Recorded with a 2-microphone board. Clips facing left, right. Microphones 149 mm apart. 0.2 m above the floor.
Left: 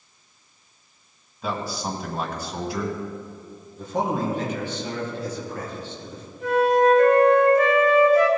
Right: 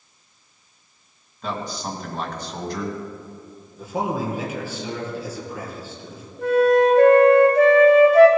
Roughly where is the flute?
Right.